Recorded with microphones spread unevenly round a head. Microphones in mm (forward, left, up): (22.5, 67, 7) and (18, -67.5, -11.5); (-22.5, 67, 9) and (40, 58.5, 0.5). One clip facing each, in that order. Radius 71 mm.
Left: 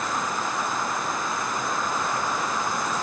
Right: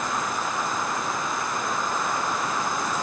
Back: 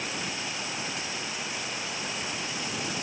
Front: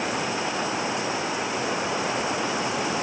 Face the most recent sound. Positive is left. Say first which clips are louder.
# even, front 8 dB
turn(degrees=0)